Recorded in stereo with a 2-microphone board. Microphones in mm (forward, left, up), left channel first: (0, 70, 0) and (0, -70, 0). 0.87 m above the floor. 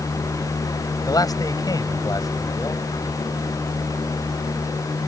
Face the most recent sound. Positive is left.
turn(degrees=25)  # may be behind; listen again after turning